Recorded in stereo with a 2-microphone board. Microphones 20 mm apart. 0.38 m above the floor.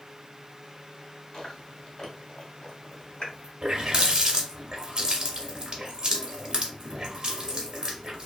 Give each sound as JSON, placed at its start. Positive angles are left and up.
{"t": 1.3, "sound": "chewing", "side_deg": 35, "distance_m": 1.1}
{"t": 3.6, "sound": "a running tap", "side_deg": -40, "distance_m": 0.8}